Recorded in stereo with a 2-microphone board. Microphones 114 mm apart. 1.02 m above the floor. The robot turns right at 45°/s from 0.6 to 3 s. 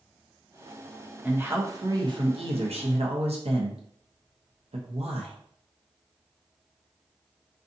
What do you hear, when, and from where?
1.2 s a man speaking: 165° right, 0.8 m; by 5.3 s 85° right, 0.8 m